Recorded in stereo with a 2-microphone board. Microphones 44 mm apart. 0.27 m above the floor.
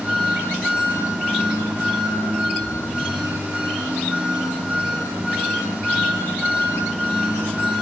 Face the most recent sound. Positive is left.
turn(degrees=-30)  # may be behind; listen again after turning